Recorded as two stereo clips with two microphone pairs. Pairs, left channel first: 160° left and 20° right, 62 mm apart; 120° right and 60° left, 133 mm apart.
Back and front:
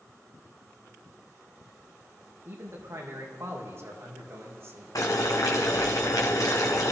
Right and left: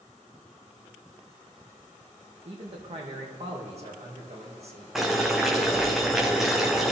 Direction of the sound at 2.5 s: 25° left.